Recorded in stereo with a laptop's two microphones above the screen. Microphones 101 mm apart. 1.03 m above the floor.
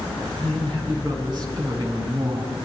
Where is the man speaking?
45° right (ahead or behind), 8.5 m.